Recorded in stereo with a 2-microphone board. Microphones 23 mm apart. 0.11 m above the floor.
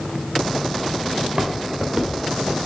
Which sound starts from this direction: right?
Footsteps, at 1.2 s.